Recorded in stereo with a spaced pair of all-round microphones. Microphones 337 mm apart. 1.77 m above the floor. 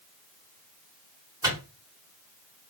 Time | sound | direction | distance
1.4 | a microwave | 10° right (ahead or behind) | 3 m